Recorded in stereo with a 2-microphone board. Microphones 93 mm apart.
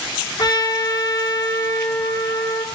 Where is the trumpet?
50° left (ahead or behind), 5 m.